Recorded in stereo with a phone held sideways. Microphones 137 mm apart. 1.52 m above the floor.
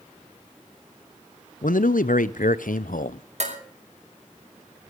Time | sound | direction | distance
1.6 | a man speaking | 80° left | 0.7 m
3.4 | dishes clattering | 55° right (ahead or behind) | 5.5 m